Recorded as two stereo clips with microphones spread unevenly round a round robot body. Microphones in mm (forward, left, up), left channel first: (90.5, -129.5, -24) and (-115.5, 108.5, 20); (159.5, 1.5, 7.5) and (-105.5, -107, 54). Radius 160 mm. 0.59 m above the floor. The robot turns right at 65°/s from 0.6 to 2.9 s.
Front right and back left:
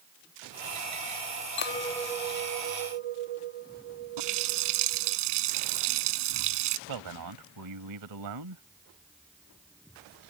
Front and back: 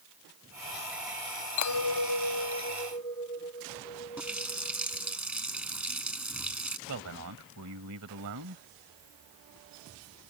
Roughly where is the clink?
Ahead.